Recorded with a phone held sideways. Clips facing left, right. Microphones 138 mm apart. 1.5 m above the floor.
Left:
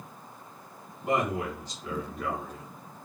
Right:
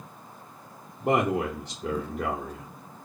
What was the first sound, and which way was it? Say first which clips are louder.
A man speaking: right 4 dB; 65° right (ahead or behind).